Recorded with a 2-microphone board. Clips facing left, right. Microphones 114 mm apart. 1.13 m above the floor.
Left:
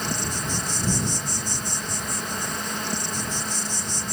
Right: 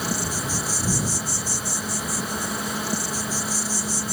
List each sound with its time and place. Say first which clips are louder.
0.0 s an insect: right 2 dB; 5° right (ahead or behind)